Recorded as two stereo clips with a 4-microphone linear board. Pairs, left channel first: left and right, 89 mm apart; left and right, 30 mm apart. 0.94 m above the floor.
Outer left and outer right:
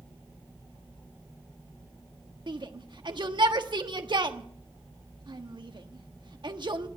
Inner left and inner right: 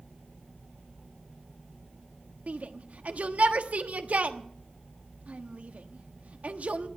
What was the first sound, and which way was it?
A shout, 55° right (ahead or behind).